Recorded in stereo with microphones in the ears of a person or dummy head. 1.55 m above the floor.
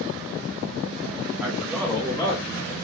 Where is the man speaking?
5° right (ahead or behind), 1.7 m; by 2.8 s 25° left (ahead or behind), 1.0 m.